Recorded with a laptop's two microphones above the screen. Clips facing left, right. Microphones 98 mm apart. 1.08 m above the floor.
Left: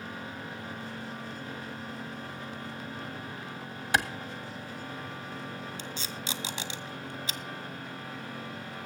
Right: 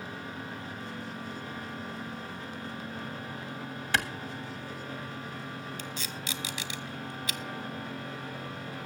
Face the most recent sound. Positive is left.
turn(degrees=25)  # may be behind; listen again after turning